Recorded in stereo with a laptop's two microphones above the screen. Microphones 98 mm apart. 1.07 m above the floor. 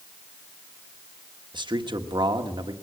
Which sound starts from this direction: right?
A man speaking, at 1.5 s.